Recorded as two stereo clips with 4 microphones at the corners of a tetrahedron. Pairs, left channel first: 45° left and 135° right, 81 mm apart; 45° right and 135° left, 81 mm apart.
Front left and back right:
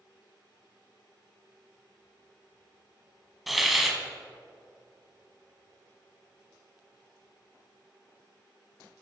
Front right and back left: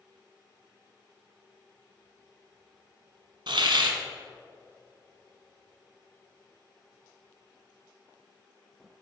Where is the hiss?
135° left, 0.9 m.